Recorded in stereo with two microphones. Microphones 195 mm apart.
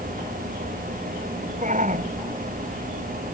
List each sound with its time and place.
1.6 s a shout: 40° right (ahead or behind)